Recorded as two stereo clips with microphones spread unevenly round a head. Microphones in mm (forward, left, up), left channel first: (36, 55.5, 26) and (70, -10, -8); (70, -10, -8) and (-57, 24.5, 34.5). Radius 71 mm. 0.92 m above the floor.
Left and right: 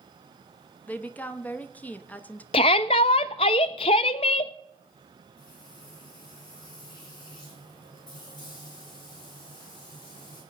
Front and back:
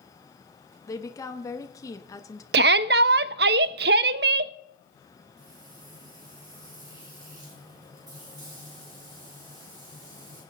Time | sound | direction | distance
0.9 | a woman speaking | 35° left | 1.2 m
2.5 | a shout | 160° left | 0.5 m
5.4 | frying | 100° left | 8.5 m